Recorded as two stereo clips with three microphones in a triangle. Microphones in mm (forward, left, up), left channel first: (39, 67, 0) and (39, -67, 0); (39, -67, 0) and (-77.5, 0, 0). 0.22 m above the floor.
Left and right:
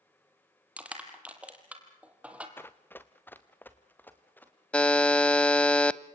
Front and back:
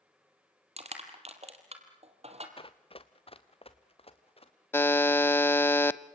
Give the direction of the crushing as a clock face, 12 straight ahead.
6 o'clock.